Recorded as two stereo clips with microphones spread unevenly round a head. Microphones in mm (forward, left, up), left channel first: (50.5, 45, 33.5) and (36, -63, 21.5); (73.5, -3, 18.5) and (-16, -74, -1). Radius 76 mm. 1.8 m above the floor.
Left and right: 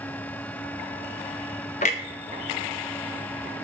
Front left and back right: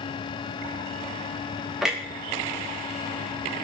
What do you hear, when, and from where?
1.8 s a clunk: 130° left, 0.5 m